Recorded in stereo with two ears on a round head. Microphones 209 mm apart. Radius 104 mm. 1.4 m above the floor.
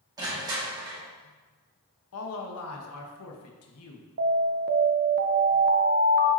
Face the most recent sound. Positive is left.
turn(degrees=-45)  # may be behind; listen again after turning